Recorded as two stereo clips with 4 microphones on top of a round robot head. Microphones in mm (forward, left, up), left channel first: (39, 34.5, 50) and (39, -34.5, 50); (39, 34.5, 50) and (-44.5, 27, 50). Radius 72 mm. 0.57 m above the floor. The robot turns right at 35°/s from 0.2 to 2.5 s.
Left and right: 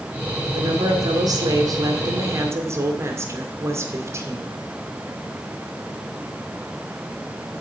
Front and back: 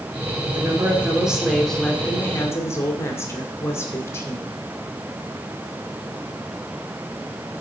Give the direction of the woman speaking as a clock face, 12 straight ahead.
4 o'clock.